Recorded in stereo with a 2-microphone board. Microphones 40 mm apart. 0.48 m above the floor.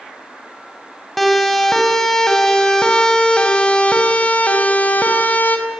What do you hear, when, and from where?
1.2 s a siren: centre (ahead or behind), 4 m; by 5.6 s 45° left (ahead or behind), 3.5 m